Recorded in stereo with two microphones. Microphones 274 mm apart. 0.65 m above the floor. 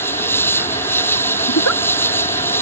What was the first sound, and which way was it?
An insect, 10° left (ahead or behind).